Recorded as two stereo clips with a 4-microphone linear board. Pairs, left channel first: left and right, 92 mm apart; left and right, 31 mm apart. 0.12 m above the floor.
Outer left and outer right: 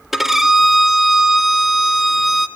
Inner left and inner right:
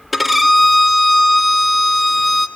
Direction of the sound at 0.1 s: 5° right (ahead or behind).